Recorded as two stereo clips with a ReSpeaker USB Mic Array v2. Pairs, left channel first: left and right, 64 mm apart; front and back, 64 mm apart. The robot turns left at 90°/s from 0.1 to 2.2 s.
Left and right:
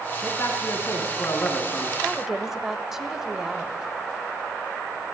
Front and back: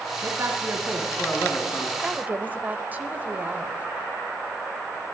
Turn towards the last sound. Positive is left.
turn(degrees=-165)